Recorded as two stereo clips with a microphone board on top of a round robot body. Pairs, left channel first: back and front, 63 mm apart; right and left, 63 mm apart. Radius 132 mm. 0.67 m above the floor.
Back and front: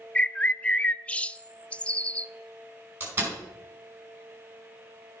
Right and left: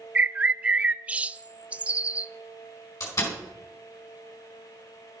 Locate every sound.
0.1 s a bird: 135° left, 0.5 m
3.0 s a door slam: 60° right, 4.5 m